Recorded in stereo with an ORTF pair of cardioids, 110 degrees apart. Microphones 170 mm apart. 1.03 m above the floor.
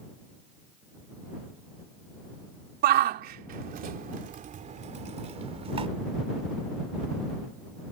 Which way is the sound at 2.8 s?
70° right.